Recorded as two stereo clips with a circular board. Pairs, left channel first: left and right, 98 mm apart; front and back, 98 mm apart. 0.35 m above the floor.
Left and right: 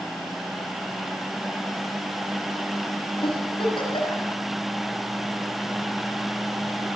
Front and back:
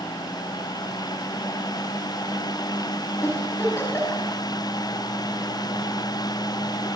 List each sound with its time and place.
3.2 s a giggle: 65° left, 5.5 m